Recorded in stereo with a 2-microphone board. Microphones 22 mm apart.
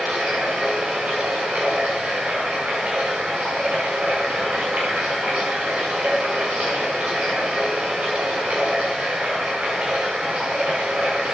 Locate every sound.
0.0 s running water: 85° right, 6.5 m